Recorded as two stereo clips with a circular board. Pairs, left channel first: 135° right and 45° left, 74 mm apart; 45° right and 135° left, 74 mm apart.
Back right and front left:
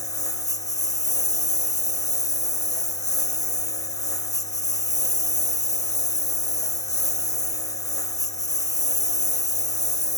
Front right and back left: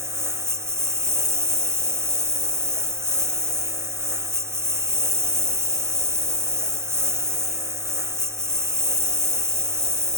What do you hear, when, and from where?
0.0 s a lawn mower: 170° right